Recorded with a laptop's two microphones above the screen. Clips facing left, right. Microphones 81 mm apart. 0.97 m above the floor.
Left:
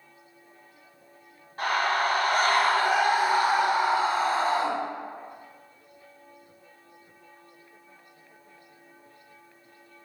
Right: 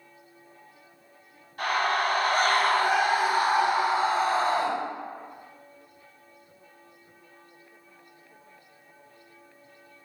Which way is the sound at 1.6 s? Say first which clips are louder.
Even; 35° left (ahead or behind).